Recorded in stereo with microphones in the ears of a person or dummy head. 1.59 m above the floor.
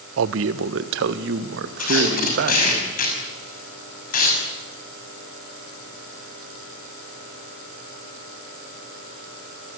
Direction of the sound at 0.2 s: 80° right.